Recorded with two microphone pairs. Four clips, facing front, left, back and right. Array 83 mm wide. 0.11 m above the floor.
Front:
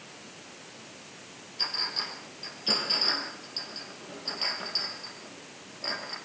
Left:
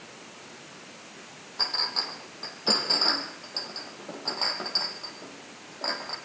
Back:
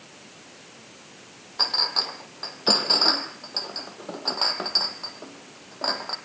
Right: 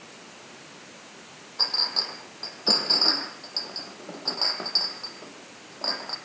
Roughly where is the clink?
Behind.